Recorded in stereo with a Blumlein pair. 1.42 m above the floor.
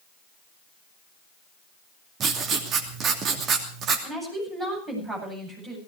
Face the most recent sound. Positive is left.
turn(degrees=-20)